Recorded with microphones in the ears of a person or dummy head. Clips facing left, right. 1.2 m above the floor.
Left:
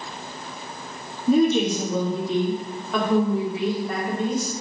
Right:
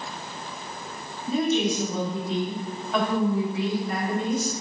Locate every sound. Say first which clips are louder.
1.3 s a woman speaking: left 5 dB; 55° left (ahead or behind), 1.4 m; by 4.6 s 85° left, 3 m